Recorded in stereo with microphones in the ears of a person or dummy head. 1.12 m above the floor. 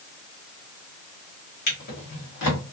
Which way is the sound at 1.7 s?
65° left (ahead or behind).